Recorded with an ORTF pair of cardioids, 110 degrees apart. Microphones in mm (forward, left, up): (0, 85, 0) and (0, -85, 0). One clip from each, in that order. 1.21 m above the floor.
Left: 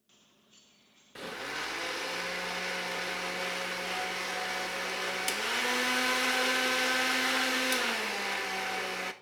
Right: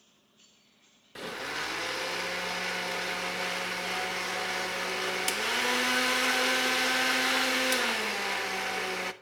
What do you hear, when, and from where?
1.1 s a blender: 15° right, 1.0 m